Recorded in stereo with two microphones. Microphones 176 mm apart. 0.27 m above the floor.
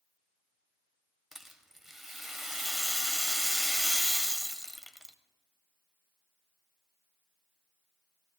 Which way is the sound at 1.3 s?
Centre (ahead or behind).